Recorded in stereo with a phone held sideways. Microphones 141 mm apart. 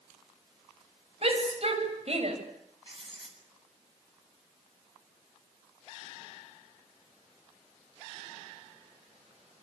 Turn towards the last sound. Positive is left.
turn(degrees=-40)  # may be behind; listen again after turning